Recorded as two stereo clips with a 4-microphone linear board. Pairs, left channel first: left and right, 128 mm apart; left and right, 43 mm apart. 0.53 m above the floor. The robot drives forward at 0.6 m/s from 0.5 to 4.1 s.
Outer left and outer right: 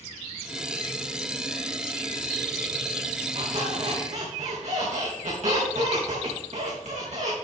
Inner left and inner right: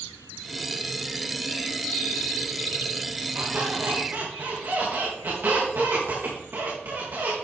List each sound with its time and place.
3.4 s a squeak: 55° right (ahead or behind), 4.5 m; by 7.3 s 60° right (ahead or behind), 4.5 m